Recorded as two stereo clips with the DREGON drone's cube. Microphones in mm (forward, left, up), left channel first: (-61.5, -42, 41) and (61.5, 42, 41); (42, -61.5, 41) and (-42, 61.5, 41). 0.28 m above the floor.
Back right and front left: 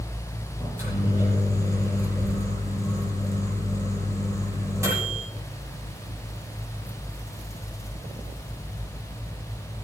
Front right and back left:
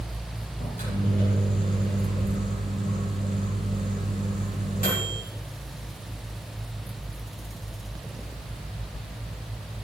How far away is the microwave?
About 9 m.